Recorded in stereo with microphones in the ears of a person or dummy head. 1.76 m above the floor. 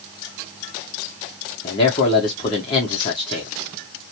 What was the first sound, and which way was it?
A man speaking, 20° left (ahead or behind).